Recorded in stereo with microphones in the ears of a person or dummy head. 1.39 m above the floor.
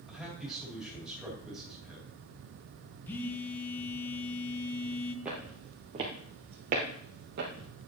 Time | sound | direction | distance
0.1 | a man speaking | centre (ahead or behind) | 3 m
3.1 | a phone buzzing | 10° left (ahead or behind) | 1.0 m
5.2 | footsteps | 5° right (ahead or behind) | 1.5 m